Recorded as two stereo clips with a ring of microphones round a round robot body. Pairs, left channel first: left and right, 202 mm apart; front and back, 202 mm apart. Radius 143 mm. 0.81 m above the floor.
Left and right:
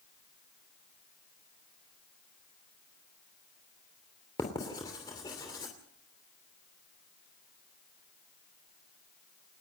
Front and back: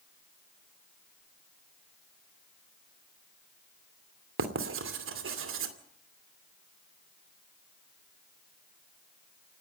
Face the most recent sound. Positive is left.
turn(degrees=165)